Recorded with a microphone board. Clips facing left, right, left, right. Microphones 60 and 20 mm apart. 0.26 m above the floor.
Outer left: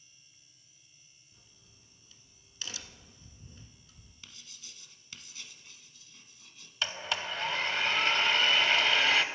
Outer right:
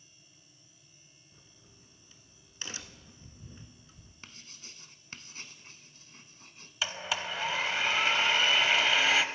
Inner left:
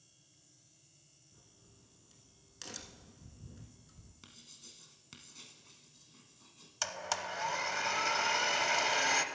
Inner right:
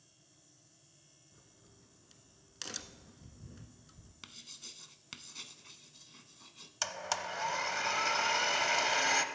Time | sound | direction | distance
1.3 | a crack | 30° right (ahead or behind) | 0.7 m
4.2 | writing | 40° right (ahead or behind) | 0.7 m
6.8 | a blender | 5° right (ahead or behind) | 0.5 m